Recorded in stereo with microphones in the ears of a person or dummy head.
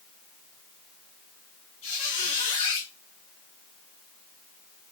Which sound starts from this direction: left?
A squeak, at 1.8 s.